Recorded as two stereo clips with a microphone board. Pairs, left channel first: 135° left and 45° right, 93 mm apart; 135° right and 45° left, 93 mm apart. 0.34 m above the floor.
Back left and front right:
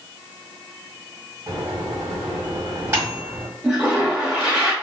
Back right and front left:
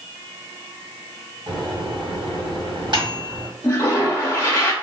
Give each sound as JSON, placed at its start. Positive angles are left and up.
{"t": 1.5, "sound": "a microwave", "azimuth_deg": 15, "distance_m": 1.6}
{"t": 3.6, "sound": "a toilet flushing", "azimuth_deg": -110, "distance_m": 1.0}